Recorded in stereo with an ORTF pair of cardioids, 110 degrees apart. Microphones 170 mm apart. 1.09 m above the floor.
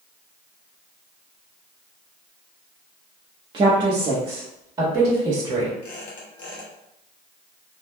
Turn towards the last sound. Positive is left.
turn(degrees=55)